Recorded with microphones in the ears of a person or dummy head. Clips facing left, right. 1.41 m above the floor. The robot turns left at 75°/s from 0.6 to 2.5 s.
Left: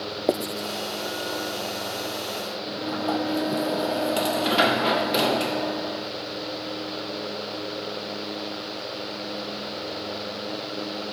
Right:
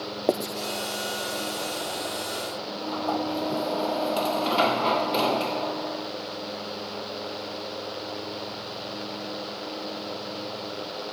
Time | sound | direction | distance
0.3 | writing | 5° left (ahead or behind) | ?
2.7 | a sliding door | 15° left (ahead or behind) | ?